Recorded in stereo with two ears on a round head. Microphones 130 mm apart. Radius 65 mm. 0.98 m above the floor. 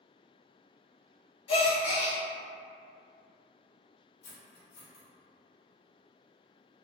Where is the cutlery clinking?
75° left (ahead or behind), 1.1 m.